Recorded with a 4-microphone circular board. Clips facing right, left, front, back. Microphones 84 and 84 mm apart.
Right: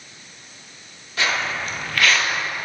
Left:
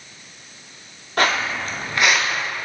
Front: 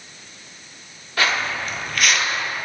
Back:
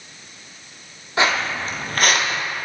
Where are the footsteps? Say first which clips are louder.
Left 3 dB, back 2 dB; 115° left, 1.2 m; by 2.4 s 175° right, 0.8 m.